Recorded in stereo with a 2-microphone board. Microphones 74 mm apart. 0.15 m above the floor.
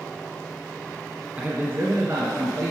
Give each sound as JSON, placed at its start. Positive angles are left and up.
{"t": 1.4, "sound": "a man speaking", "side_deg": -20, "distance_m": 1.1}